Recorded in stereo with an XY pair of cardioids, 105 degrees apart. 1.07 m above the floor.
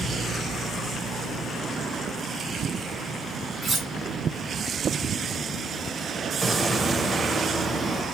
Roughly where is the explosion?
Ahead.